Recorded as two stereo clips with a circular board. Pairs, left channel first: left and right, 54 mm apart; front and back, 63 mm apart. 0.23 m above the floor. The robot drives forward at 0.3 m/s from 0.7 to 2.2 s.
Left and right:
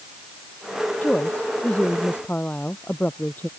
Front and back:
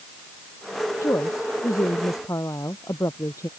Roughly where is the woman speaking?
Ahead left.